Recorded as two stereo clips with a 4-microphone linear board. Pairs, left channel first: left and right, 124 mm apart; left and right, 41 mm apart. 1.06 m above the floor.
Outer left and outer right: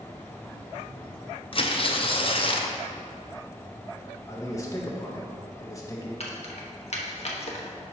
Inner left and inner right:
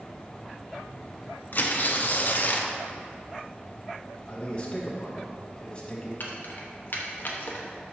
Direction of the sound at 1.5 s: 45° left (ahead or behind).